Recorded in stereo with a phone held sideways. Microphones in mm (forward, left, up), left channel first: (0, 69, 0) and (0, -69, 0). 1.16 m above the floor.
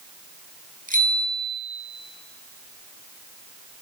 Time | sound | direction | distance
0.9 | a bicycle bell | 80° right | 7 m